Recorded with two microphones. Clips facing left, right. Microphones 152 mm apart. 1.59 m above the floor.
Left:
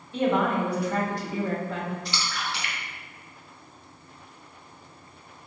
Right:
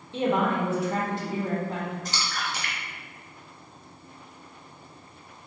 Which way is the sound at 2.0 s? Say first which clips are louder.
Even; 45° right (ahead or behind).